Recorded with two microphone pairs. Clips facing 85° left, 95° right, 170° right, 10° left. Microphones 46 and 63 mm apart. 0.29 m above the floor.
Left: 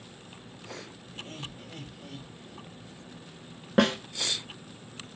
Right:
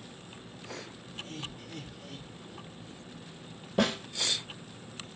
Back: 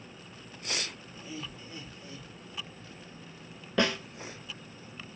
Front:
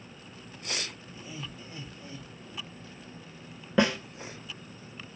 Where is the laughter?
80° left, 1.2 m; by 3.0 s 20° right, 1.6 m.